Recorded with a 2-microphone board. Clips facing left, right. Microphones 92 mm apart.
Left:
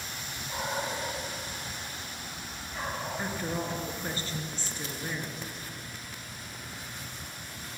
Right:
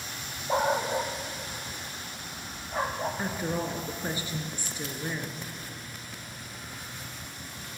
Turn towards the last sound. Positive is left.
turn(degrees=-15)  # may be behind; listen again after turning